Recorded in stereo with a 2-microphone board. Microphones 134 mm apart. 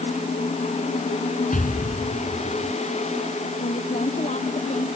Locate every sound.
1.5 s an explosion: 75° left (ahead or behind)
3.6 s a woman speaking: 60° left (ahead or behind)